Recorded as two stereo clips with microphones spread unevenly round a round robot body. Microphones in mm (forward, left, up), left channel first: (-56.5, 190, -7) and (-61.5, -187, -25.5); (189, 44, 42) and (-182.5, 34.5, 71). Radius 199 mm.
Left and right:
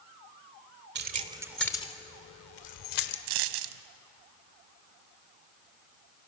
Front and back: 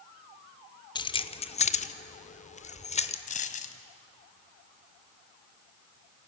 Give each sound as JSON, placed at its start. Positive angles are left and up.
{"t": 0.9, "sound": "keys jangling", "azimuth_deg": -60, "distance_m": 0.9}
{"t": 3.3, "sound": "a dropped coin", "azimuth_deg": -70, "distance_m": 0.8}